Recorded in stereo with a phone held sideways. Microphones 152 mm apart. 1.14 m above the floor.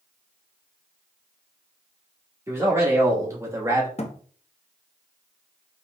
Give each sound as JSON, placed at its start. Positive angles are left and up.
{"t": 2.5, "sound": "a man speaking", "side_deg": -20, "distance_m": 1.7}
{"t": 4.0, "sound": "a thud", "side_deg": 45, "distance_m": 0.6}